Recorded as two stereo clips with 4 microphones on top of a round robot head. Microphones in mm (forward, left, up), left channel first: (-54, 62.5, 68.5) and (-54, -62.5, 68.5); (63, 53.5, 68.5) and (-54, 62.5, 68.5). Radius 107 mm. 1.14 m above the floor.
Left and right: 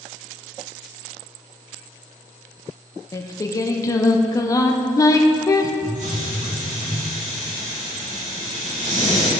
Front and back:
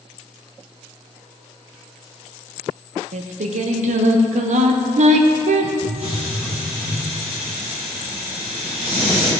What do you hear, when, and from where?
3.1 s singing: 155° left, 0.6 m
5.8 s a hiss: 110° right, 2 m